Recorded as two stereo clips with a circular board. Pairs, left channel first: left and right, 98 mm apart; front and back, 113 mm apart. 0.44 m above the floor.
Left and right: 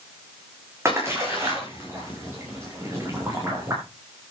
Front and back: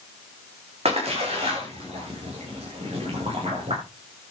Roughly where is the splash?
Behind right.